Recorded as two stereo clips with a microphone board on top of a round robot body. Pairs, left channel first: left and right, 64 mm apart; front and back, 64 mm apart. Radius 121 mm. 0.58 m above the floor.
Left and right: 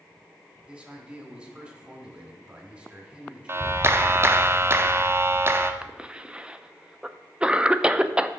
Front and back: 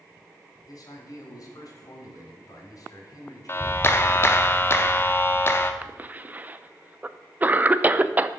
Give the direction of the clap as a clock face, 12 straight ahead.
1 o'clock.